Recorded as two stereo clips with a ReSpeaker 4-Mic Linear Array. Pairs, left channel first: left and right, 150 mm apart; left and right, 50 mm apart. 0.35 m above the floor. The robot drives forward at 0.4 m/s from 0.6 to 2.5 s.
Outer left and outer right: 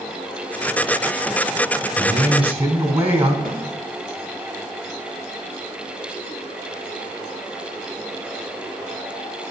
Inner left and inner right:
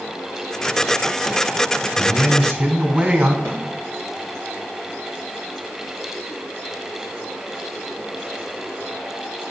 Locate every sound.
2.0 s a man speaking: 40° right (ahead or behind), 2 m; by 3.4 s 45° right (ahead or behind), 2 m
3.5 s a snare drum: 75° right (ahead or behind), 3.5 m